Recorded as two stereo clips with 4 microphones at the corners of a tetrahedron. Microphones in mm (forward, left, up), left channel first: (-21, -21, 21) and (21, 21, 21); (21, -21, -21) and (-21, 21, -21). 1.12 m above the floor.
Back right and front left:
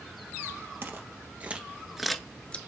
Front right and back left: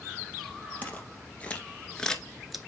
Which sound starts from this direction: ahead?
Footsteps, at 0.8 s.